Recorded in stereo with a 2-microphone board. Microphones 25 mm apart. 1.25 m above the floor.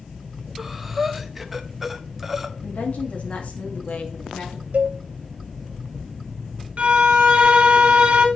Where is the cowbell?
65° right (ahead or behind), 0.9 m.